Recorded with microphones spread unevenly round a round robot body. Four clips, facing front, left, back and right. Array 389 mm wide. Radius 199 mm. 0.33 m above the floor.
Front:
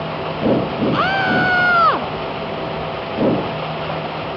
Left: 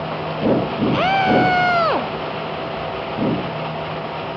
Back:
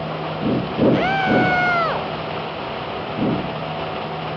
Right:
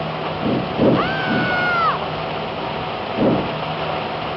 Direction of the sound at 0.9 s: 60° left.